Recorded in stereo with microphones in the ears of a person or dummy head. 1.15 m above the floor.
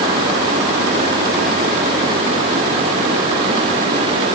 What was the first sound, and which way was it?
Only background noise.